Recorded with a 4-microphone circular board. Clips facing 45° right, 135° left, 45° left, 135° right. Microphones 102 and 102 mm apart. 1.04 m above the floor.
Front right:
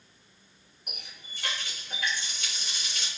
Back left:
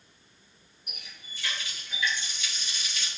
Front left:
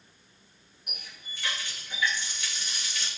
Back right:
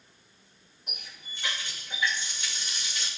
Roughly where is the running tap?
Right.